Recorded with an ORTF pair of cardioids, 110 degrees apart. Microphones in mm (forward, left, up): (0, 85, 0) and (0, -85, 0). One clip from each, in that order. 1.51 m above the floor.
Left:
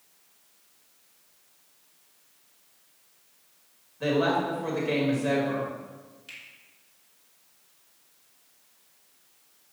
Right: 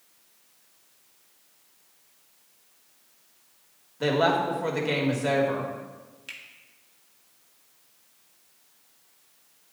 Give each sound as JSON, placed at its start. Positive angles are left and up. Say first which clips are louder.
{"t": 4.0, "sound": "a woman speaking", "louder": "right 2 dB", "azimuth_deg": -35, "distance_m": 2.0}
{"t": 6.3, "sound": "a finger snap", "louder": "right 3 dB", "azimuth_deg": -40, "distance_m": 2.0}